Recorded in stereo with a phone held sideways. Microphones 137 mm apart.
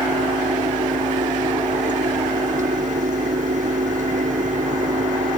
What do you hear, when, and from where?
0.0 s a fan: 65° right (ahead or behind)